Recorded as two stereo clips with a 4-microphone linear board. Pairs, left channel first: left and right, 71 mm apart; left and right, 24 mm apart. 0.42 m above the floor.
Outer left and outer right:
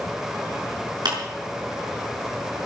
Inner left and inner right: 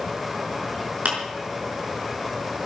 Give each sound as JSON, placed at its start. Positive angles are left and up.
{"t": 1.1, "sound": "a clap", "side_deg": -80, "distance_m": 5.0}